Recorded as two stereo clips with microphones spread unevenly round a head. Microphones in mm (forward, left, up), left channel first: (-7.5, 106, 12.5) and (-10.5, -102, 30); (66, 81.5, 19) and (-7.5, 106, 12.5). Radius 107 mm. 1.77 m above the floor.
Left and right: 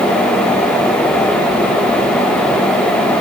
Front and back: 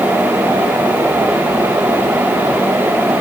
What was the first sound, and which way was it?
Only background noise.